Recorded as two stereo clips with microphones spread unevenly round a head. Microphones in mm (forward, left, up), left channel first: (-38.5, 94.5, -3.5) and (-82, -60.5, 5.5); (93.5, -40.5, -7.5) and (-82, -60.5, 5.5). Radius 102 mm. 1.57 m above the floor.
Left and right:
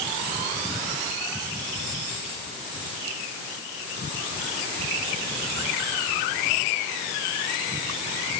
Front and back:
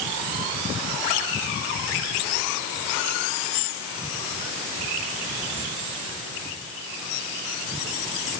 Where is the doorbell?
No doorbell in this recording.